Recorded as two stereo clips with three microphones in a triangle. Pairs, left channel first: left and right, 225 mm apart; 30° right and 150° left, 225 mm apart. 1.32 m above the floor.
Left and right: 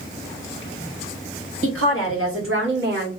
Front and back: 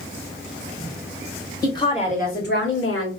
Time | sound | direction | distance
1.6 | a woman speaking | 105° right | 1.8 m